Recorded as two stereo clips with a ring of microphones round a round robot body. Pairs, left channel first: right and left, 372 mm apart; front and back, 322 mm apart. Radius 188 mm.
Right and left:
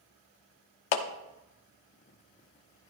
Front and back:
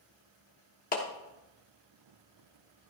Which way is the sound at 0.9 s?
70° right.